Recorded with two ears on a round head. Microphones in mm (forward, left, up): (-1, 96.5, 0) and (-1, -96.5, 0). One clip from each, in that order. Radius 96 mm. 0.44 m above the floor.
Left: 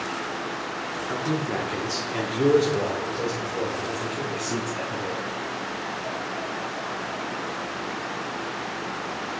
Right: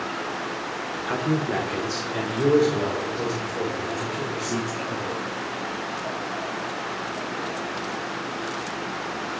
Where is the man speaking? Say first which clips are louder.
Right 3 dB; 30° right (ahead or behind), 1.0 m; by 5.3 s 65° left (ahead or behind), 3.5 m.